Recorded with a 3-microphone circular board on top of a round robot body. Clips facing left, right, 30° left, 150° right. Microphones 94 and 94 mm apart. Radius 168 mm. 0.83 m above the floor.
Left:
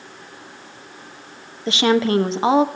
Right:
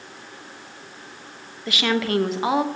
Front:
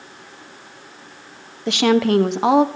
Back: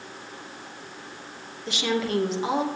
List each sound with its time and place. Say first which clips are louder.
1.7 s a woman speaking: left 6 dB, front 10 dB; 30° left, 1.2 m